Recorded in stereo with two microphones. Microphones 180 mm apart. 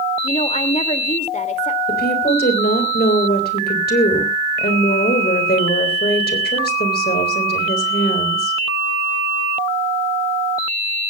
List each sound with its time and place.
0.2 s a woman speaking: 40° left (ahead or behind), 2 m
1.9 s a woman speaking: 65° left (ahead or behind), 3.5 m